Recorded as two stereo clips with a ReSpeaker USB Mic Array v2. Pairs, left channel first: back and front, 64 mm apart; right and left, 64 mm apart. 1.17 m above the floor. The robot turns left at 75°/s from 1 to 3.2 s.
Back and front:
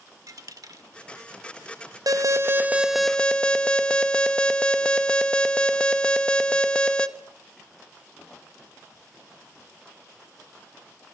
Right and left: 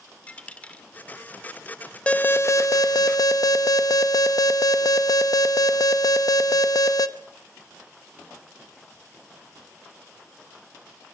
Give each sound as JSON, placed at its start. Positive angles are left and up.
{"t": 0.3, "sound": "a dropped coin", "azimuth_deg": -20, "distance_m": 1.8}
{"t": 2.1, "sound": "an alarm", "azimuth_deg": -20, "distance_m": 1.2}